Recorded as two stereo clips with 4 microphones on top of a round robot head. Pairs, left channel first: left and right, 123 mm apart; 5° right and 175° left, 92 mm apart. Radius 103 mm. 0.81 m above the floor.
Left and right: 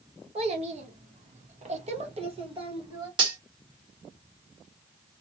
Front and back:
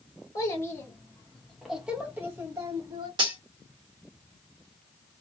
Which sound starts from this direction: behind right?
Cutlery clinking, at 3.2 s.